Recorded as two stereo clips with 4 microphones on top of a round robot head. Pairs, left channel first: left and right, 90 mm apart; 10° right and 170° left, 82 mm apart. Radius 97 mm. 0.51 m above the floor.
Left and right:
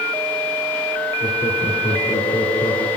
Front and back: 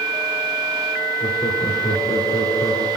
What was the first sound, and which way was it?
Laughter, 35° left.